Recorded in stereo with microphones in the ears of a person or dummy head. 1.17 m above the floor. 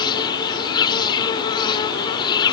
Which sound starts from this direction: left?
An insect, at 0.0 s.